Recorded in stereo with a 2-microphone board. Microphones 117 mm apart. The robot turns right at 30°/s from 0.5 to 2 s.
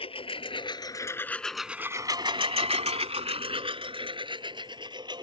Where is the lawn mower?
55° left (ahead or behind); by 5.2 s 40° right (ahead or behind).